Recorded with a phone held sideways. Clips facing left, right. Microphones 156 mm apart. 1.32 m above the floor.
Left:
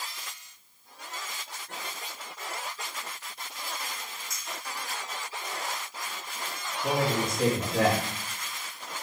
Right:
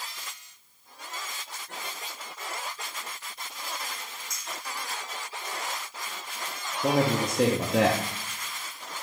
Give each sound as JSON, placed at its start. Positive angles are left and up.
{"t": 4.3, "sound": "a clink", "side_deg": 0, "distance_m": 1.8}
{"t": 6.8, "sound": "a man speaking", "side_deg": -85, "distance_m": 0.7}